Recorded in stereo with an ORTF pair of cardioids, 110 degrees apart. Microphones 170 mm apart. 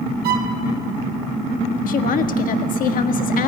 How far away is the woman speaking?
About 1.7 m.